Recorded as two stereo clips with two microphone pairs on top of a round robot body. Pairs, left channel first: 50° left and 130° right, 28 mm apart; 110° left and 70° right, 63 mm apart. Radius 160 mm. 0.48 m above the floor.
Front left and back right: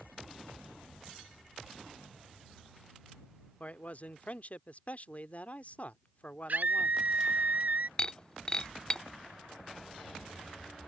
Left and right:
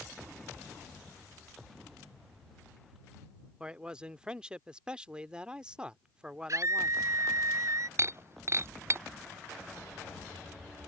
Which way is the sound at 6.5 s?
105° right.